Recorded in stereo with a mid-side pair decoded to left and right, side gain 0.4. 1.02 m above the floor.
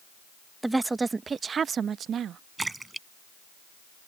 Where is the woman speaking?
15° right; by 2.4 s 75° right.